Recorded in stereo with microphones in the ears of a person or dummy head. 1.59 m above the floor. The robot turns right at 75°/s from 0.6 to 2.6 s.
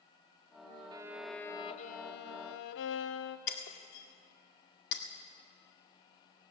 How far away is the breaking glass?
About 1.8 m.